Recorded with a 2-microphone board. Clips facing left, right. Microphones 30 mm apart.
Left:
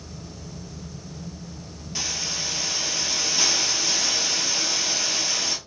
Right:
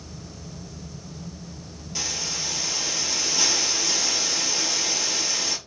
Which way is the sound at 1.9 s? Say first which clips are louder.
Left 1 dB; 15° left (ahead or behind).